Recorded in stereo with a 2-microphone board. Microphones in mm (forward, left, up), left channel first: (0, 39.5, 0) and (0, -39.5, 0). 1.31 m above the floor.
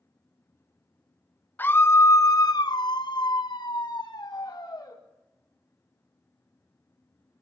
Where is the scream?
25° left (ahead or behind), 1.1 m; by 5.0 s 55° left (ahead or behind), 2.5 m.